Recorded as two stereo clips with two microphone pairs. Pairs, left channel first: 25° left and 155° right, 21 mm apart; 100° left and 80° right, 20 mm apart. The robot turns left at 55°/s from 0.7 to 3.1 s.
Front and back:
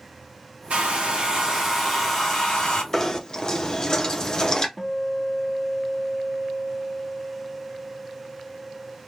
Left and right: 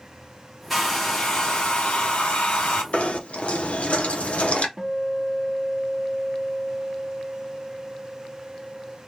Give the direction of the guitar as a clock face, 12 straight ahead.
2 o'clock.